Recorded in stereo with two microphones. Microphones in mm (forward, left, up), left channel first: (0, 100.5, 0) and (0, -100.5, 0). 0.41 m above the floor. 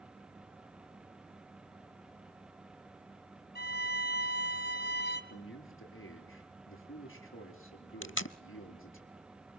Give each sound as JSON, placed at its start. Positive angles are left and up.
{"t": 3.5, "sound": "a violin", "side_deg": 50, "distance_m": 3.0}
{"t": 5.3, "sound": "a man speaking", "side_deg": 70, "distance_m": 7.0}
{"t": 8.0, "sound": "tape being pulled", "side_deg": 65, "distance_m": 0.5}